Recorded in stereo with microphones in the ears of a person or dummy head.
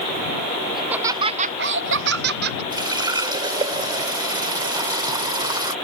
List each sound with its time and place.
0.8 s laughter: centre (ahead or behind); by 2.6 s 60° right (ahead or behind)
2.7 s a running tap: 25° right (ahead or behind)